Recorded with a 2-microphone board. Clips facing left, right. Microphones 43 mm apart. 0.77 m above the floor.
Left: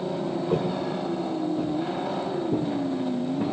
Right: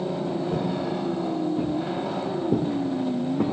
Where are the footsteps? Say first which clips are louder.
Even; 45° left (ahead or behind), 1.5 m; by 3.4 s 75° right (ahead or behind), 3 m.